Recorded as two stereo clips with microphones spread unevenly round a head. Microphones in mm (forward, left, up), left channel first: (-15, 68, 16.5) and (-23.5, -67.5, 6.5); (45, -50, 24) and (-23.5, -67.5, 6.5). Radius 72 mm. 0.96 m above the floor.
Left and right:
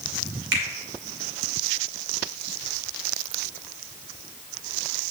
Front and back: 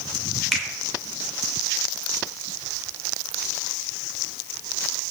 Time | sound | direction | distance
0.5 | a finger snap | 80° right | 2 m